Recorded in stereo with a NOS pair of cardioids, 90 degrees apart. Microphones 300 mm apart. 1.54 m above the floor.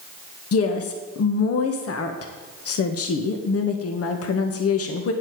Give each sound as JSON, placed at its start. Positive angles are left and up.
{"t": 0.5, "sound": "a woman speaking", "azimuth_deg": 50, "distance_m": 1.8}